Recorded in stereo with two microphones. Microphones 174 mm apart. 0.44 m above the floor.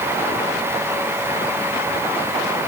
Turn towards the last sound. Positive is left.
No sound to turn to.